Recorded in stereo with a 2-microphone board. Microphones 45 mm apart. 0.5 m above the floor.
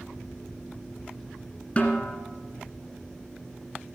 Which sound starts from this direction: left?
A snare drum, at 1.8 s.